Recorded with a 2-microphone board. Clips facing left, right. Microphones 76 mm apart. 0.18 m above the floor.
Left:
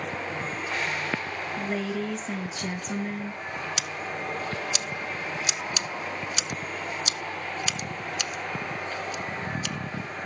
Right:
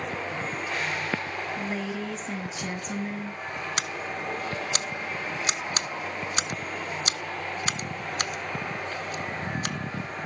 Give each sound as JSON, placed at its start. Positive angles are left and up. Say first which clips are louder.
{"t": 1.6, "sound": "a woman speaking", "louder": "left 5 dB", "side_deg": -5, "distance_m": 1.2}
{"t": 3.8, "sound": "scissors", "louder": "right 1 dB", "side_deg": -45, "distance_m": 0.7}